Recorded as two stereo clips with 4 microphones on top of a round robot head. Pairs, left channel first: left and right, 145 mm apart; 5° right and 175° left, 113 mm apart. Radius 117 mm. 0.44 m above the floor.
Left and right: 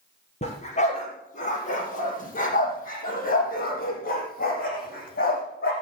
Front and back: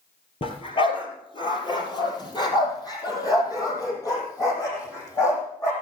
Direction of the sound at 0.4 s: 35° left.